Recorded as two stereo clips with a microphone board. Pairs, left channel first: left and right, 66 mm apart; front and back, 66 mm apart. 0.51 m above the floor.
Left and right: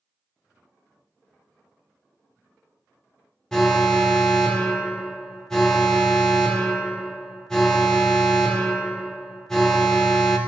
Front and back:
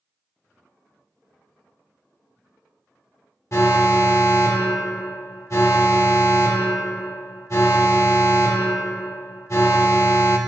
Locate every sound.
3.5 s an alarm: 10° left, 0.9 m